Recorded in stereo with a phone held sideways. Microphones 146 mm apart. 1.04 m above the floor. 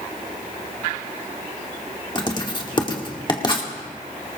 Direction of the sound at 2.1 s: 30° left (ahead or behind).